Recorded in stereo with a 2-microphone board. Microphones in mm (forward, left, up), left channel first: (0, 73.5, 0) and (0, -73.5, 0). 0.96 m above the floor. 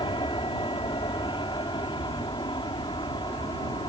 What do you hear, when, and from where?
0.0 s an aircraft: 35° left (ahead or behind)